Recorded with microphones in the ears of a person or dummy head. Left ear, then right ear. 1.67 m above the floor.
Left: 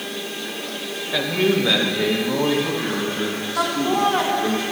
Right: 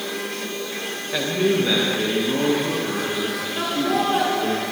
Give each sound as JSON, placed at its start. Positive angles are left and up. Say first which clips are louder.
{"t": 1.1, "sound": "a man speaking", "louder": "left 1 dB", "side_deg": 5, "distance_m": 1.4}
{"t": 3.6, "sound": "laughter", "louder": "left 2 dB", "side_deg": 55, "distance_m": 2.5}